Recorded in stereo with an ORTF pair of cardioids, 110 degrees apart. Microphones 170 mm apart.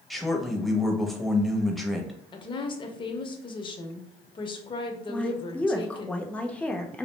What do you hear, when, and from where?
0.1 s a man speaking: straight ahead, 0.7 m
2.3 s a woman speaking: 30° left, 0.6 m
5.1 s a woman speaking: 10° left, 0.5 m